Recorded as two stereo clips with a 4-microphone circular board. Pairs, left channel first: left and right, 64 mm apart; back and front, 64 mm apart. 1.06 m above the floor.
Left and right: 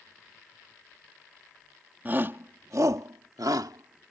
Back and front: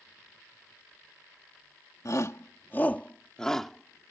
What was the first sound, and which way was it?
A shout, 150° right.